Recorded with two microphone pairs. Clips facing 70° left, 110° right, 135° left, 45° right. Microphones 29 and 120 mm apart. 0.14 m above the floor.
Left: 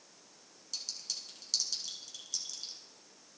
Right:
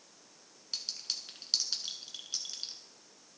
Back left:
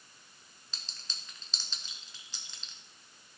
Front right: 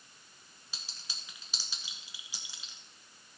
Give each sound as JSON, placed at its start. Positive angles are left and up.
{"t": 0.7, "sound": "a clink", "azimuth_deg": -115, "distance_m": 1.2}